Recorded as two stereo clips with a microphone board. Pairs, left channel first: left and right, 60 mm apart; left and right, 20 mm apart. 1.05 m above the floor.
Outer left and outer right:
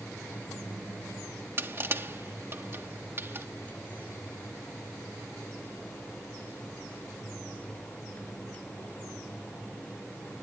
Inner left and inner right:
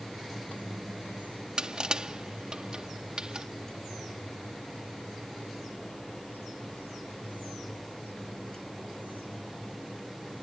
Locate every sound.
1.6 s crushing: 40° right (ahead or behind)